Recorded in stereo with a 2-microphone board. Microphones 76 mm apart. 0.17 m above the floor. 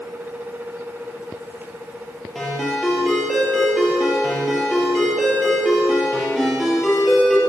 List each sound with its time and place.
2.4 s a ringtone: centre (ahead or behind), 3 m